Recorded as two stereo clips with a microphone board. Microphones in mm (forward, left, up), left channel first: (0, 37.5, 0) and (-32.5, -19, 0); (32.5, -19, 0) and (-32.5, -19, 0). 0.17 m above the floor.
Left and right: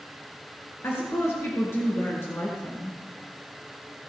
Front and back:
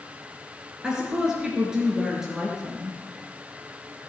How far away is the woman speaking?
About 3 m.